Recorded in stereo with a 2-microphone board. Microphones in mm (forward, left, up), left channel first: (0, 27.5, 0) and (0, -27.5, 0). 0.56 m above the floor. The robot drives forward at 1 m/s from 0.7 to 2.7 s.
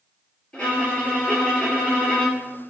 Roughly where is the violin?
Centre.